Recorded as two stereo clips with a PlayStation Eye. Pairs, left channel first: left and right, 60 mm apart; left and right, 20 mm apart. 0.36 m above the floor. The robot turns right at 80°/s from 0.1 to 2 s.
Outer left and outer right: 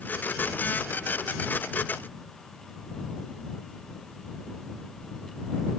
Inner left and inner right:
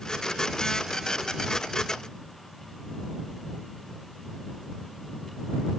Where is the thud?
No thud in this recording.